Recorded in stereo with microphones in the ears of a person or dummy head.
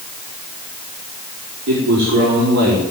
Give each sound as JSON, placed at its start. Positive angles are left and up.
{"t": 1.7, "sound": "a man speaking", "side_deg": -65, "distance_m": 5.0}